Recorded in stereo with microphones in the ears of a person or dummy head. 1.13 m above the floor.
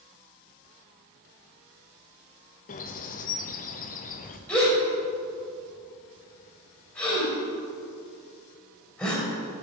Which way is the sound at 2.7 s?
40° left (ahead or behind).